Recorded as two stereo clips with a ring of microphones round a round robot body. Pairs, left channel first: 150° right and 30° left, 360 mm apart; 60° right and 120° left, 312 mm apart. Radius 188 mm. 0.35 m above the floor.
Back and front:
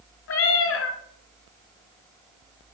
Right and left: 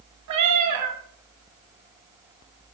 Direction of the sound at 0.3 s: 160° left.